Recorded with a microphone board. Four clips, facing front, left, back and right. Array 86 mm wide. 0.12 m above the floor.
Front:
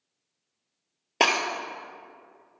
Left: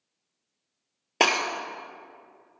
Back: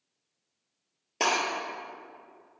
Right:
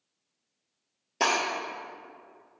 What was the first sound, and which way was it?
Breaking glass, 50° left.